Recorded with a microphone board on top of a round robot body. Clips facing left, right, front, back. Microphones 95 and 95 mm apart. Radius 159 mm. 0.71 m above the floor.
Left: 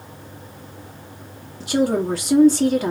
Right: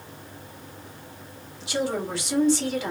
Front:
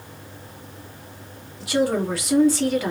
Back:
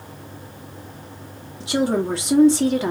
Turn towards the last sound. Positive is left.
turn(degrees=120)